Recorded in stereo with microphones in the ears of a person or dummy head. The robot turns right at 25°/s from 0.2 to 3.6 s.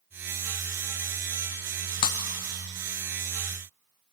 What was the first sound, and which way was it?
Breaking glass, 20° left (ahead or behind).